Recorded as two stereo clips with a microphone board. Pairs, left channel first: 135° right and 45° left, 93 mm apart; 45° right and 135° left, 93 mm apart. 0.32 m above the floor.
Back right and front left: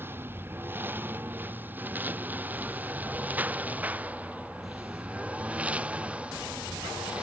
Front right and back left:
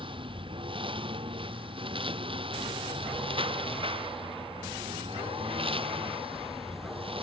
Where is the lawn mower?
110° left; by 7.2 s 120° left.